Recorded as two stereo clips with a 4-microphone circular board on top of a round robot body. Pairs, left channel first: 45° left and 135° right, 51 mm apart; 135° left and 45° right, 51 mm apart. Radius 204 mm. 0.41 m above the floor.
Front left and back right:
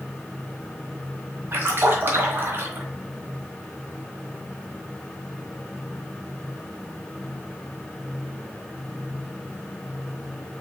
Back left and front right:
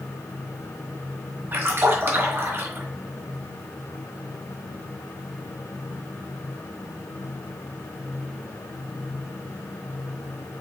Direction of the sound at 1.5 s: 85° right.